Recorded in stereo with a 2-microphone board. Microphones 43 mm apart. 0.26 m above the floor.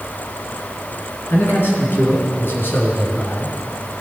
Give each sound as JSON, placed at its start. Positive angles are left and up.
{"t": 1.3, "sound": "a man speaking", "side_deg": 60, "distance_m": 3.5}